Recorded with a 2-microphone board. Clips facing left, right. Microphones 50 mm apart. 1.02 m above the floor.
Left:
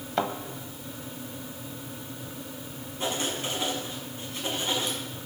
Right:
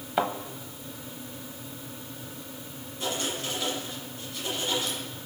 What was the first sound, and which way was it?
A thud, 10° right (ahead or behind).